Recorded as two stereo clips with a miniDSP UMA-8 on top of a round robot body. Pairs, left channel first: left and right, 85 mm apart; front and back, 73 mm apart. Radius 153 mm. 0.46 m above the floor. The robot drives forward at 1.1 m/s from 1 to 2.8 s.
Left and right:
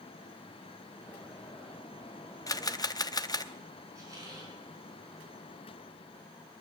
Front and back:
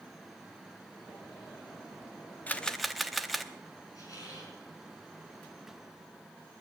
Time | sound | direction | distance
2.5 | a camera shutter | 60° left | 1.0 m
4.0 | a squeak | 40° right | 5.5 m